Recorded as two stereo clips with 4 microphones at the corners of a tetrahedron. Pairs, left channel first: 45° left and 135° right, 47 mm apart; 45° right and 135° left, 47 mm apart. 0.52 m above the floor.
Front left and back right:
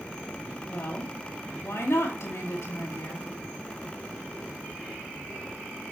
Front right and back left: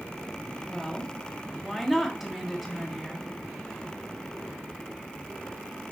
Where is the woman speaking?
50° left, 4.5 m.